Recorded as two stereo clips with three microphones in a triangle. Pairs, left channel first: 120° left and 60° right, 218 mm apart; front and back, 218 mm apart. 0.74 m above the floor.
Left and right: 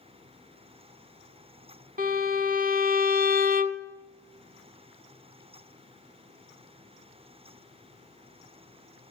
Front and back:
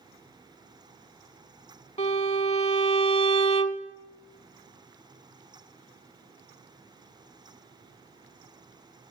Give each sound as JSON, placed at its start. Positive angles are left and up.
{"t": 2.0, "sound": "a violin", "azimuth_deg": -45, "distance_m": 0.8}